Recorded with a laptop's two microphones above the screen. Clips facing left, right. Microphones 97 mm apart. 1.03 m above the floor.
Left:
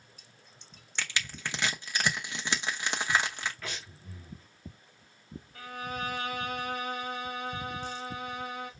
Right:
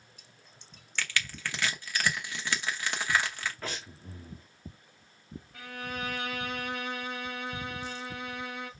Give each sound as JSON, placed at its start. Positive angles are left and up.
{"t": 1.0, "sound": "crushing", "side_deg": 20, "distance_m": 0.7}
{"t": 3.6, "sound": "breathing", "side_deg": -35, "distance_m": 1.3}
{"t": 5.5, "sound": "a violin", "side_deg": -70, "distance_m": 4.0}